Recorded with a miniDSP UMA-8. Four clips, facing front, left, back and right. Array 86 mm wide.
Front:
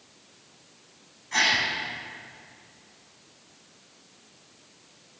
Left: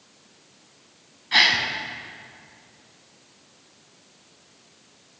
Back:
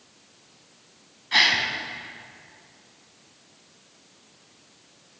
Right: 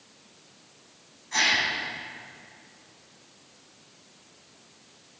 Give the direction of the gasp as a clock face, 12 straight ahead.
8 o'clock.